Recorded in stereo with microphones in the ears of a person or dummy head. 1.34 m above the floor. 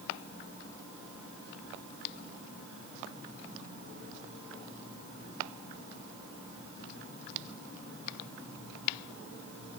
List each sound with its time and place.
Only background noise.